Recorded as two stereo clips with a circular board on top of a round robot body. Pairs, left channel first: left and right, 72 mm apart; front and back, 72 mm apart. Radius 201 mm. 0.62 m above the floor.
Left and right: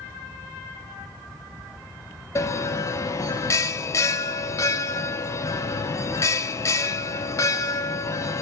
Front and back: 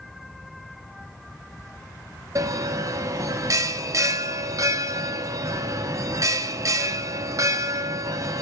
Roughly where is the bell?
Behind left.